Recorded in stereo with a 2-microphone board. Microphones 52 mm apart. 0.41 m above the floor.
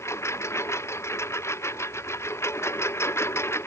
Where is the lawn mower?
60° left (ahead or behind); by 3.7 s 55° left (ahead or behind).